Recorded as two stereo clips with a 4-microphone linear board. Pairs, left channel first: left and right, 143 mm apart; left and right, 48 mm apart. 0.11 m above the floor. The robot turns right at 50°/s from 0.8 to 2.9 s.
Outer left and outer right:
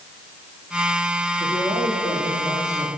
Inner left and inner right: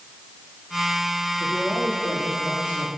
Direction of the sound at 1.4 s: 95° right.